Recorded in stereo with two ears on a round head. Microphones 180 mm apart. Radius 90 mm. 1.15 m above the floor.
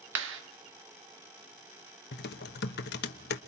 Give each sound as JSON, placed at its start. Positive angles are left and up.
{"t": 0.1, "sound": "a clap", "side_deg": -65, "distance_m": 1.6}
{"t": 2.1, "sound": "typing on a keyboard", "side_deg": 55, "distance_m": 1.0}